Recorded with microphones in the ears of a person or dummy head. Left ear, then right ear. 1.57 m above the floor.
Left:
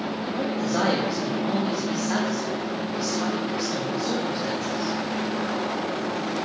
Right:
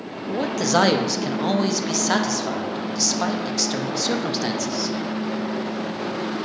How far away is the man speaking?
About 0.5 m.